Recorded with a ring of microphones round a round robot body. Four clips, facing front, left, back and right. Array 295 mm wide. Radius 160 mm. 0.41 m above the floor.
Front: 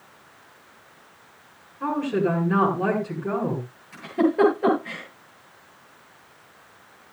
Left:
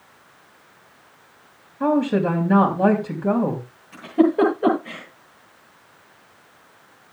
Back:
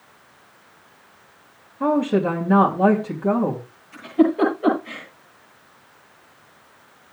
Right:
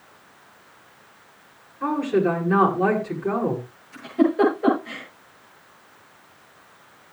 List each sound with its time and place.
1.8 s a woman speaking: 125° left, 3.5 m
3.9 s a giggle: 70° left, 9.5 m